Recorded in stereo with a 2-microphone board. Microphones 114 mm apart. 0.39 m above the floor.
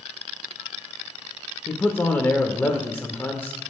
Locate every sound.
1.7 s a man speaking: 20° left (ahead or behind), 0.8 m